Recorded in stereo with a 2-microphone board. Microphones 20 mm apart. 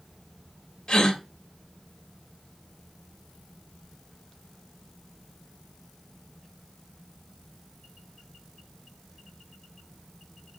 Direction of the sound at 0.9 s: 50° left (ahead or behind).